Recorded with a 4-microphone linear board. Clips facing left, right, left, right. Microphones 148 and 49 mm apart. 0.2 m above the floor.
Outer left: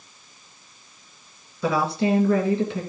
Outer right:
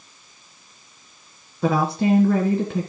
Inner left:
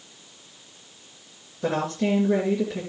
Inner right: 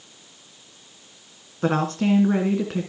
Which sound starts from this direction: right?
A woman speaking, at 1.6 s.